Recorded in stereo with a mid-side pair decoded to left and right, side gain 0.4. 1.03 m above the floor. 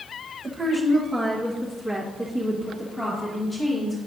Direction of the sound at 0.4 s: 30° right.